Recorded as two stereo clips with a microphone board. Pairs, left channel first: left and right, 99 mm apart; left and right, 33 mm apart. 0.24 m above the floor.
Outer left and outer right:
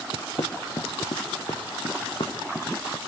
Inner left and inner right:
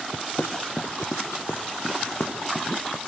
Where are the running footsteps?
80° left, 1.8 m; by 3.0 s 60° left (ahead or behind), 3.5 m.